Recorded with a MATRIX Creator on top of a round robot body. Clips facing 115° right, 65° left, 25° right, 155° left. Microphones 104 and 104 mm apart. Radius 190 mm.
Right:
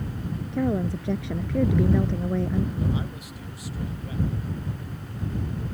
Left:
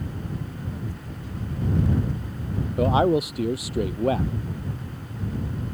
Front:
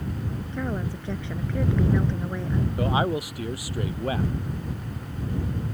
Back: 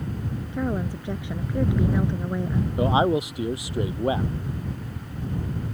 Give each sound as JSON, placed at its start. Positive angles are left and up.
{"t": 0.5, "sound": "a woman speaking", "azimuth_deg": -125}
{"t": 2.8, "sound": "a man speaking", "azimuth_deg": 90}